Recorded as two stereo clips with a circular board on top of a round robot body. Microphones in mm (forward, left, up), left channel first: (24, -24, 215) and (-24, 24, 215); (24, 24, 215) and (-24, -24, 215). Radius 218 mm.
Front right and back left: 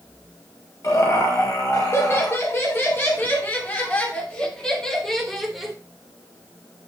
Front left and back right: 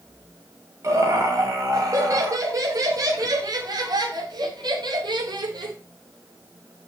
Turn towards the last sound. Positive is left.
turn(degrees=-135)